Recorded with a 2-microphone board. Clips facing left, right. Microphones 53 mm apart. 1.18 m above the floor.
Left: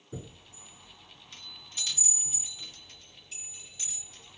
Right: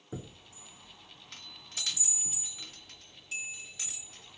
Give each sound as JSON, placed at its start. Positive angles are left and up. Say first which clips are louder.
{"t": 0.1, "sound": "a chime", "louder": "even", "side_deg": -85, "distance_m": 1.6}